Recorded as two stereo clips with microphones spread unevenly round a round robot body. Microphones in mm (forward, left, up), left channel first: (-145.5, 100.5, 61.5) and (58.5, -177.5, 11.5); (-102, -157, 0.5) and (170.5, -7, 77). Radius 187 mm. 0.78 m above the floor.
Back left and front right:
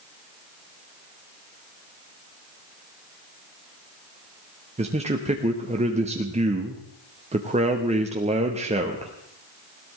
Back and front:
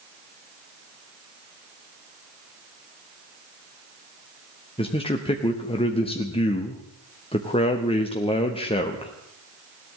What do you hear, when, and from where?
4.8 s a man speaking: 105° right, 1.3 m